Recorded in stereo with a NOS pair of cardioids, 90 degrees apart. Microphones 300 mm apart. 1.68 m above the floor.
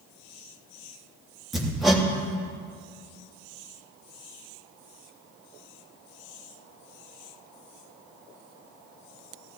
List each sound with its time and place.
1.5 s hammering: straight ahead, 3 m